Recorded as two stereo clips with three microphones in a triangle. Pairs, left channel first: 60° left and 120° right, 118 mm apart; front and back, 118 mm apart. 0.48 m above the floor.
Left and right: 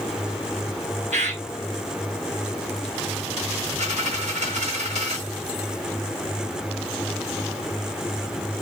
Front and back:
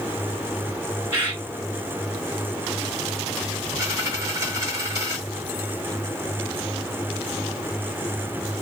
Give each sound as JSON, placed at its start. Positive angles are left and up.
{"t": 1.1, "sound": "a bird", "azimuth_deg": -105, "distance_m": 2.5}
{"t": 3.8, "sound": "a dropped coin", "azimuth_deg": -115, "distance_m": 1.9}